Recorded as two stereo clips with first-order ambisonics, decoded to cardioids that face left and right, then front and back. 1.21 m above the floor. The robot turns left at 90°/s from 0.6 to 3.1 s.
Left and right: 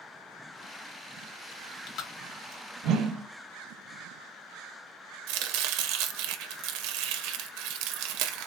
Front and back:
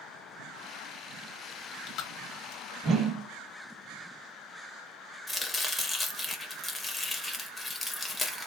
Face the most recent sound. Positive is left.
turn(degrees=-80)